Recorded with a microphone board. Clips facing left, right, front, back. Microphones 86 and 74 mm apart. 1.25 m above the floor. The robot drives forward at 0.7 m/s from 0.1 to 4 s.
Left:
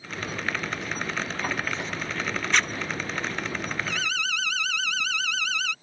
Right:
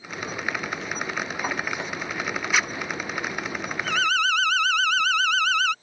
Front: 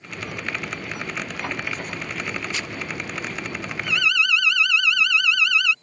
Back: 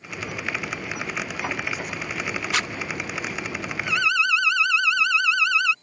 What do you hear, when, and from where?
2.5 s a zipper: 170° right
3.8 s an alarm: 115° right